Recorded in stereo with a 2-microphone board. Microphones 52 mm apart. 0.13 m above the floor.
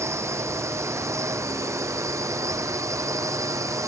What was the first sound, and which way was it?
A drone, 65° right (ahead or behind).